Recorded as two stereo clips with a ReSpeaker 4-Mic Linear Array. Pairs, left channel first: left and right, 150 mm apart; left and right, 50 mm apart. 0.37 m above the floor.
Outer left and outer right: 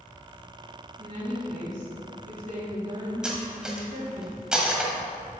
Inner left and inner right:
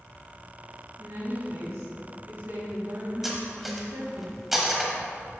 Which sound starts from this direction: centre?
Cutlery clinking, at 3.2 s.